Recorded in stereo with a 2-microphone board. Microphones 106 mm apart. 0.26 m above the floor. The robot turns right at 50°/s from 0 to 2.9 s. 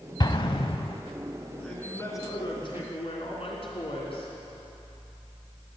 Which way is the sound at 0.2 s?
40° left (ahead or behind).